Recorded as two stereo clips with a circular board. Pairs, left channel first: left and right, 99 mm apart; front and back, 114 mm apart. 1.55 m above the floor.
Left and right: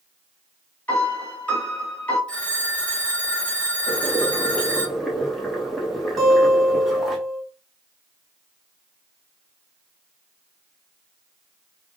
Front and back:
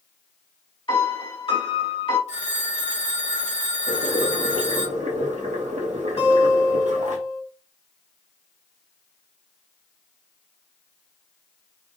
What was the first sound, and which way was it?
A piano, 20° left.